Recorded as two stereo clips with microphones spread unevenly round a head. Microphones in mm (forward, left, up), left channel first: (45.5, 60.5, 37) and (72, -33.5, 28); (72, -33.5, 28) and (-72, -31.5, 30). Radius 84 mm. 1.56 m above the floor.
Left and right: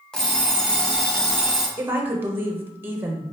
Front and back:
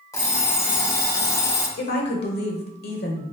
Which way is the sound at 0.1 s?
45° left.